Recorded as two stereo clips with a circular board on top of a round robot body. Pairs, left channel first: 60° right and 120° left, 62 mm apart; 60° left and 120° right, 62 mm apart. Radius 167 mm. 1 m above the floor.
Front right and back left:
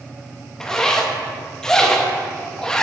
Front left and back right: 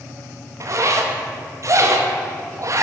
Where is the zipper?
140° right, 1.0 m.